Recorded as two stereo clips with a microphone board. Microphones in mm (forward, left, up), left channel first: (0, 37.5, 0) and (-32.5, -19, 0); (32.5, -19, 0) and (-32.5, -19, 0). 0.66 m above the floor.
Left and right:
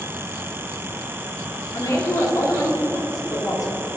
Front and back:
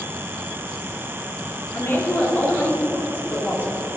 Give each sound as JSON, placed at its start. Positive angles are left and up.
{"t": 1.7, "sound": "a woman speaking", "azimuth_deg": 55, "distance_m": 1.6}